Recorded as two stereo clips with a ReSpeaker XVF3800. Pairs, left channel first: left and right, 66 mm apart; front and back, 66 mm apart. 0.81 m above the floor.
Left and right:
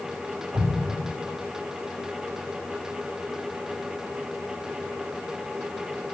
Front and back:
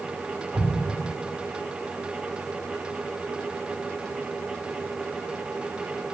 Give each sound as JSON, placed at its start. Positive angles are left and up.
{"t": 0.5, "sound": "an explosion", "azimuth_deg": -120, "distance_m": 3.0}